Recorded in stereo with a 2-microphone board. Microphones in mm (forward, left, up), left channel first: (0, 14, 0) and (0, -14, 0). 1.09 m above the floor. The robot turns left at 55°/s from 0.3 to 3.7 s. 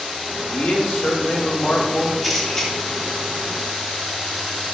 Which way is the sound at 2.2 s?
Centre (ahead or behind).